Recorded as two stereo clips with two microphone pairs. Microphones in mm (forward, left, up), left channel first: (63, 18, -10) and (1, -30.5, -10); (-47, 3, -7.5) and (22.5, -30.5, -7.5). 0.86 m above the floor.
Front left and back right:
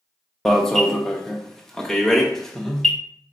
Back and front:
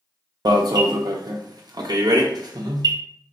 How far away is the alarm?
About 0.7 m.